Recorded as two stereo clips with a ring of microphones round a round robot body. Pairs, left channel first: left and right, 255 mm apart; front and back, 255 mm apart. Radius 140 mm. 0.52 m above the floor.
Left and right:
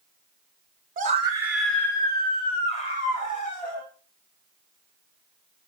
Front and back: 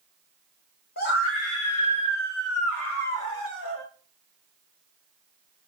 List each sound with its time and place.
1.0 s a scream: 40° right, 1.1 m; by 3.8 s 35° left, 3.5 m